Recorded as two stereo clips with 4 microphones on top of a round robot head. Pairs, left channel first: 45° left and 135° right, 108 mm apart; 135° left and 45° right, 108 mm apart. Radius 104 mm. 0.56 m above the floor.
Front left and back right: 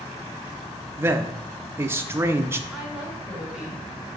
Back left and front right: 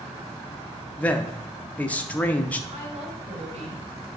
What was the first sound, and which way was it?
A man speaking, 165° right.